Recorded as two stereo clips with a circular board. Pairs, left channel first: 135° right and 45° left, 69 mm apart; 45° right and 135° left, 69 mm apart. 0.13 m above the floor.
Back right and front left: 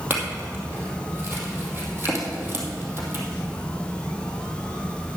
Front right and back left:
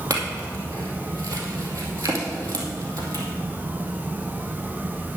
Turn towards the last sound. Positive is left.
turn(degrees=100)